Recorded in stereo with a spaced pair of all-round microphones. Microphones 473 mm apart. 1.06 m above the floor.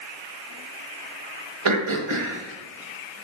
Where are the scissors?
I don't hear scissors.